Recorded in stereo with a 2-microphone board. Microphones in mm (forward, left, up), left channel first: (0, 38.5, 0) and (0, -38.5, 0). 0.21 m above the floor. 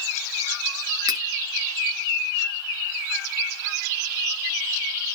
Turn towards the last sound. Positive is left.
turn(degrees=-65)  # may be behind; listen again after turning